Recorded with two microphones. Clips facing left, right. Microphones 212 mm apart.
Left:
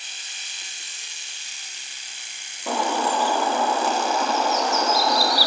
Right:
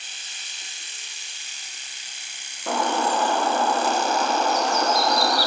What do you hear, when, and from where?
2.7 s a bird: 5° left (ahead or behind), 1.5 m